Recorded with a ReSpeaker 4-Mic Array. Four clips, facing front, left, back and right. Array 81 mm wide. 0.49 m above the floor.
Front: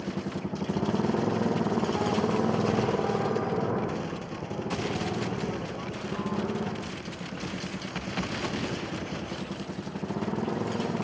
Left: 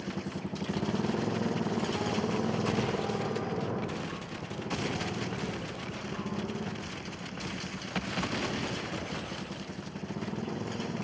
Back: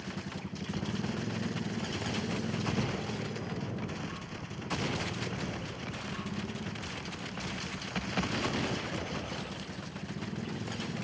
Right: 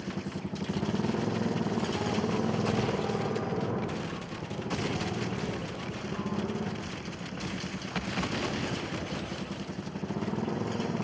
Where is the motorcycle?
5° left; by 11.1 s 15° right.